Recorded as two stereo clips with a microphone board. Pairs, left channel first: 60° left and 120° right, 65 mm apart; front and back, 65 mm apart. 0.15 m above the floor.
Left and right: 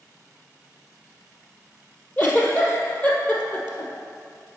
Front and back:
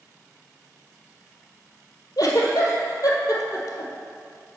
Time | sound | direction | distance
2.2 | a giggle | straight ahead | 1.5 m